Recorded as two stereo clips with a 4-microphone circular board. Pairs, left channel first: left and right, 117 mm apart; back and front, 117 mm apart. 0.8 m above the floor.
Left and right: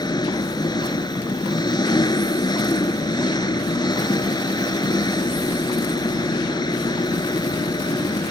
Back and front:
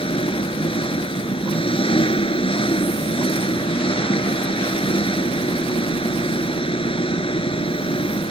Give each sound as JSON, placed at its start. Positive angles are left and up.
{"t": 0.0, "sound": "an engine running", "azimuth_deg": 140}